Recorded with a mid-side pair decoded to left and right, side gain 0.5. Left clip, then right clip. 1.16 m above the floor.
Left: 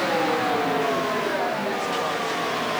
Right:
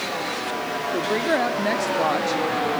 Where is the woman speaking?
60° right, 3 m; by 2.4 s 50° right, 1.9 m.